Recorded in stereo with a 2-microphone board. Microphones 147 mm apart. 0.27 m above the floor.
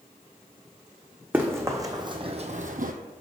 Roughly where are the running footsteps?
Centre.